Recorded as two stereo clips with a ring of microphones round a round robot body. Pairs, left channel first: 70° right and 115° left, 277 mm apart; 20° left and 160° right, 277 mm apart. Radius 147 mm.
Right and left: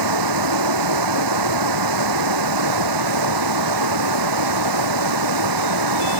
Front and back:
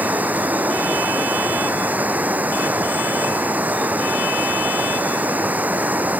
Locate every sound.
0.0 s running water: 120° left